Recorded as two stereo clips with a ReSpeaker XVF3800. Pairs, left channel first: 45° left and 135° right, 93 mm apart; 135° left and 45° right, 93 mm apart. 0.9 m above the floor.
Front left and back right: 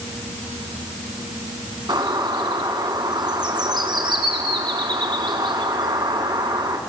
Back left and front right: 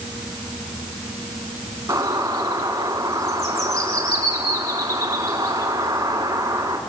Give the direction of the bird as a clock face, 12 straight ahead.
3 o'clock.